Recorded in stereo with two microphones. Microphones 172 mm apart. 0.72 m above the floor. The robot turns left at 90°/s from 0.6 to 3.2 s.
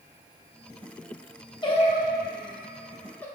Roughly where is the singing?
Left.